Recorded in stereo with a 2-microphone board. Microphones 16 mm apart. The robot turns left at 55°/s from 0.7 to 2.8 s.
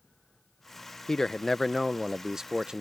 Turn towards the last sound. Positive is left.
turn(degrees=-65)